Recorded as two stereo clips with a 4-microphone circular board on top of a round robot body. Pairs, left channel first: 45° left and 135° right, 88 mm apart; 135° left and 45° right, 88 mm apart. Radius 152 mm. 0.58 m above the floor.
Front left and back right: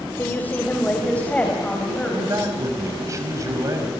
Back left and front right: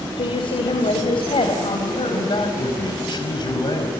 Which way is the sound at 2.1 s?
170° left.